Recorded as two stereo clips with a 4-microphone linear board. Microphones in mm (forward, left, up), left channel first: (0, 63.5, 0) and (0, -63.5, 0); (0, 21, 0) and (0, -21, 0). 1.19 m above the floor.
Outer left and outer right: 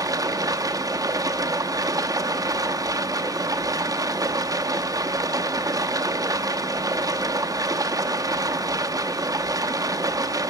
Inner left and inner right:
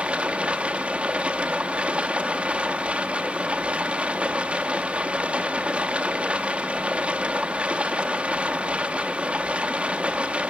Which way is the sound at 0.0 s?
30° right (ahead or behind).